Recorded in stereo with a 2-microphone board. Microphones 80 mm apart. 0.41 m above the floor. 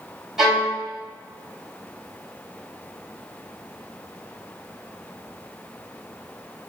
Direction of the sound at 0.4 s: 5° right (ahead or behind).